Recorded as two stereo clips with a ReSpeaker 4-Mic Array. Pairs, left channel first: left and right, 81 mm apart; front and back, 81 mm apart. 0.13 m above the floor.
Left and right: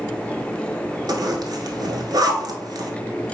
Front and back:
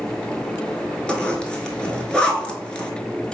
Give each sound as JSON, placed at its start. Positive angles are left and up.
{"t": 1.1, "sound": "a zipper", "azimuth_deg": -75, "distance_m": 0.8}